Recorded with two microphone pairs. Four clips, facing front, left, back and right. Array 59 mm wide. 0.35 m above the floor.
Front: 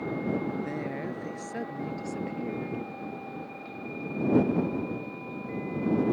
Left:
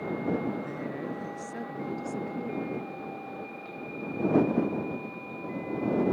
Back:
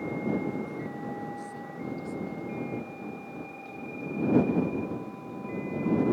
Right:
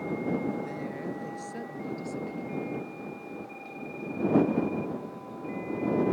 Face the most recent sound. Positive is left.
turn(degrees=10)